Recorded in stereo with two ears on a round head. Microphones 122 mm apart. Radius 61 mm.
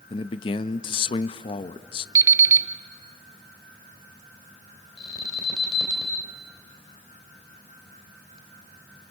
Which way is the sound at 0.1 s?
40° left (ahead or behind).